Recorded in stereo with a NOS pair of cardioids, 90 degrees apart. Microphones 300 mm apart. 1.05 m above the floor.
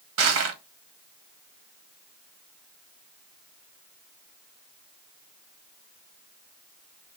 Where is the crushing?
55° right, 1.0 m.